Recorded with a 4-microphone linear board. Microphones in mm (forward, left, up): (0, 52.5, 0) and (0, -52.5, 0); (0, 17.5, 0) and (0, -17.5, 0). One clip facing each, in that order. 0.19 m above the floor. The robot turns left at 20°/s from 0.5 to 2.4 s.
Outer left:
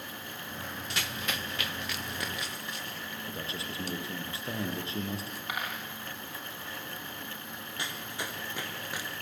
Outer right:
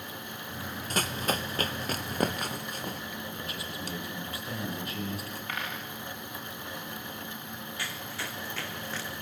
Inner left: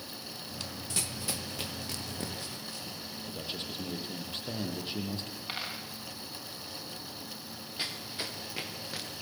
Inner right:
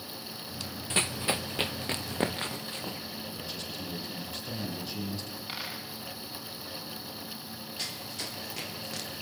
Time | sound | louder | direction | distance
0.9 | running footsteps | outer right 8 dB, inner right 9 dB | 40° right (ahead or behind) | 1.0 m
3.3 | a man speaking | even, even | 25° left (ahead or behind) | 7.5 m
5.5 | a dropped coin | outer left 1 dB, inner left 1 dB | 15° left (ahead or behind) | 10 m
7.8 | running footsteps | outer left 2 dB, inner left 2 dB | 20° left (ahead or behind) | 4.5 m